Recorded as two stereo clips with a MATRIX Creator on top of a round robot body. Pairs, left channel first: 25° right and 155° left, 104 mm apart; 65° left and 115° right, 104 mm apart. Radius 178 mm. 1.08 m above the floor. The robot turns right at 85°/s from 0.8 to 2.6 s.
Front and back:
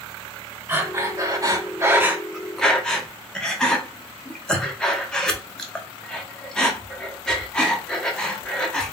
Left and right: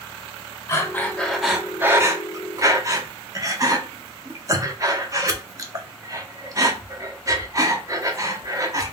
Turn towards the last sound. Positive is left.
turn(degrees=-100)